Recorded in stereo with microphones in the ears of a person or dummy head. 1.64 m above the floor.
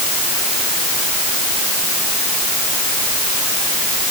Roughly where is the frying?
I don't hear frying.